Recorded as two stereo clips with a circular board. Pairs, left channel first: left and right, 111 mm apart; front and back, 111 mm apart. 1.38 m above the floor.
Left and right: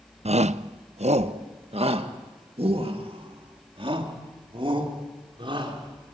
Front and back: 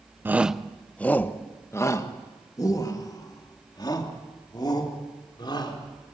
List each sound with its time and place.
0.2 s a shout: 110° right, 0.6 m; by 6.0 s 50° right, 4.5 m